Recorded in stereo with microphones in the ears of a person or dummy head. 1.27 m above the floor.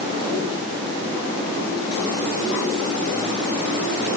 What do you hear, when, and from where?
Only background noise.